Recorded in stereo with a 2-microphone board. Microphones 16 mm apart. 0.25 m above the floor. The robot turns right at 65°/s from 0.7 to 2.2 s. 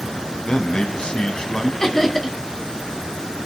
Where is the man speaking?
80° left, 1.5 m; by 1.7 s 145° left, 1.5 m.